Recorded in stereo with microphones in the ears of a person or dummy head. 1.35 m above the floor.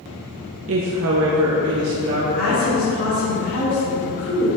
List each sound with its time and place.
0.7 s a woman speaking: 65° right (ahead or behind), 0.6 m; by 2.2 s 75° right (ahead or behind), 1.6 m
2.3 s a woman speaking: 70° left (ahead or behind), 2.5 m